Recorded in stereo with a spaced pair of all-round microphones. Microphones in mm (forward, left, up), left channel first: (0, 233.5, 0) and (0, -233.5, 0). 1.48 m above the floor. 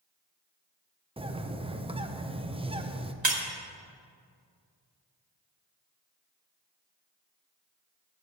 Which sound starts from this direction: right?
Breaking glass, at 3.2 s.